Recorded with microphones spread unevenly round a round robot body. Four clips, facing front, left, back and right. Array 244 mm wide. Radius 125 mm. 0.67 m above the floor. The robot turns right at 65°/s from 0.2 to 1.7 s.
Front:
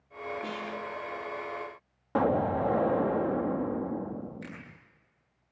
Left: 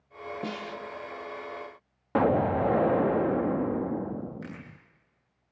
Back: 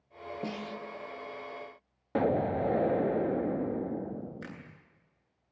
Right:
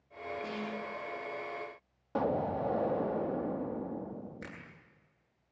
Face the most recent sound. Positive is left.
turn(degrees=-120)